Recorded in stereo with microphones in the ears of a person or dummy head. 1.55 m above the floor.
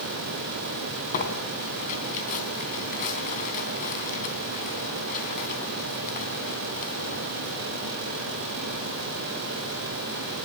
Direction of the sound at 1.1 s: 40° left (ahead or behind).